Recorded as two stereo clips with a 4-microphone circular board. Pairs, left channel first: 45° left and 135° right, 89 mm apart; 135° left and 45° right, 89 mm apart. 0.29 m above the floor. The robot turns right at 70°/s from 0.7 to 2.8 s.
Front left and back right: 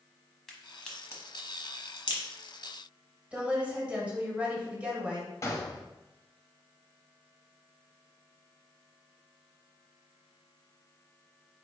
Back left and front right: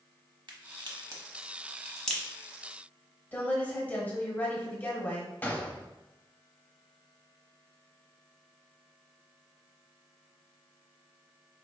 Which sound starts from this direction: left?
A gunshot, at 5.4 s.